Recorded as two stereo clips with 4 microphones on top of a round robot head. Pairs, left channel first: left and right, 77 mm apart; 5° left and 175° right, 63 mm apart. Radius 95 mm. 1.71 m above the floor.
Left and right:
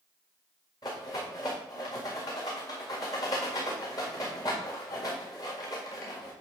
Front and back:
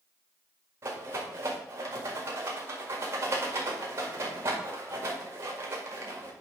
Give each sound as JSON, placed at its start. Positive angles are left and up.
{"t": 0.8, "sound": "a rattle", "azimuth_deg": 140, "distance_m": 1.8}